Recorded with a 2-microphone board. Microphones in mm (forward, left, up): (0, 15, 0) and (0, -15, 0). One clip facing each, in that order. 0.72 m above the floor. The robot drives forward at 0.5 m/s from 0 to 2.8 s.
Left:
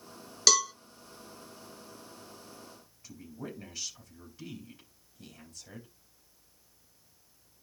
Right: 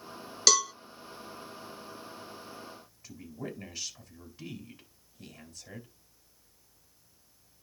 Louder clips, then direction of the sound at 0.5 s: Even; centre (ahead or behind).